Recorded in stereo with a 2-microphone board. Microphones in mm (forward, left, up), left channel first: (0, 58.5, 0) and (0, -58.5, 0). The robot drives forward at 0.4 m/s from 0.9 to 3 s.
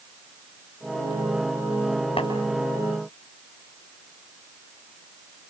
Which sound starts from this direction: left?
Tapping, at 2.2 s.